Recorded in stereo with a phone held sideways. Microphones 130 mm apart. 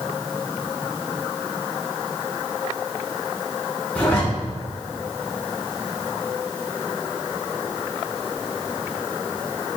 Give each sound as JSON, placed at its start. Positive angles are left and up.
{"t": 4.0, "sound": "a zipper", "side_deg": 15, "distance_m": 3.0}